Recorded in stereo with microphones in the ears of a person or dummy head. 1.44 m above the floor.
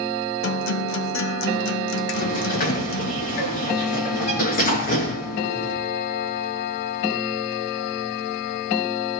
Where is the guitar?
65° left (ahead or behind), 1.6 m.